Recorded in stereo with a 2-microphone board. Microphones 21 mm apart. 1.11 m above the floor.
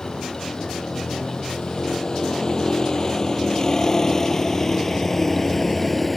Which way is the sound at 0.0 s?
40° left (ahead or behind).